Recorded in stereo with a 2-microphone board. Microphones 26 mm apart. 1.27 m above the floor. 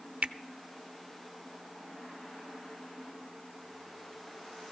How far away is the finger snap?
About 0.6 m.